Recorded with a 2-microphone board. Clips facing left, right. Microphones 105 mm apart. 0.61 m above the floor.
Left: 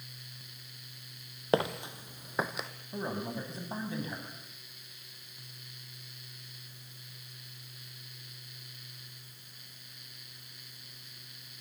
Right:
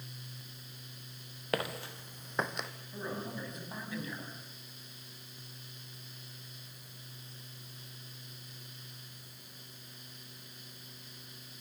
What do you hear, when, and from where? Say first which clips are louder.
1.5 s footsteps: left 6 dB; 25° left (ahead or behind), 1.4 m; by 2.7 s centre (ahead or behind), 1.7 m
2.9 s a man speaking: left 4 dB; 30° left (ahead or behind), 5.5 m